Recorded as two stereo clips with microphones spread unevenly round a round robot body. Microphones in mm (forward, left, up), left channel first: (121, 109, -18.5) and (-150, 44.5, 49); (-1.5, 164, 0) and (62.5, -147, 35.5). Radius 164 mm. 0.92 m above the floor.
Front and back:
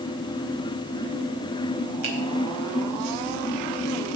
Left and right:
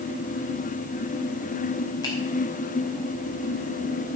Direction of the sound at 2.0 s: Straight behind.